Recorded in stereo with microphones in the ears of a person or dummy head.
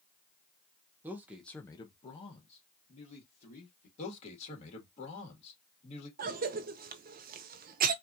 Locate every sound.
1.0 s a man speaking: 15° right (ahead or behind), 0.6 m; by 3.9 s 40° left (ahead or behind), 1.8 m
4.0 s a man speaking: 40° left (ahead or behind), 2 m
6.2 s a cough: 45° right (ahead or behind), 0.5 m